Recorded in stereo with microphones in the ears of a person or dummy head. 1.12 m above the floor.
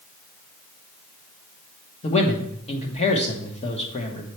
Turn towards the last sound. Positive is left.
turn(degrees=30)  # may be behind; listen again after turning